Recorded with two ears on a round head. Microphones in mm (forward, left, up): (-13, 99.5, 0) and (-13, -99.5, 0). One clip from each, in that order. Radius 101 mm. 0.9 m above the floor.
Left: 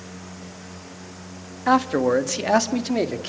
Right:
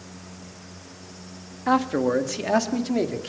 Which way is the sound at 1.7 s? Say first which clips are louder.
Left 3 dB; 20° left (ahead or behind).